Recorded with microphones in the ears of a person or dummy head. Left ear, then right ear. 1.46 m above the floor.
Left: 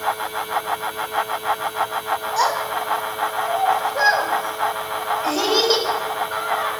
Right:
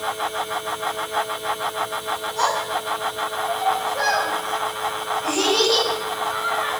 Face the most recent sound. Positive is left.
turn(degrees=40)  # may be behind; listen again after turning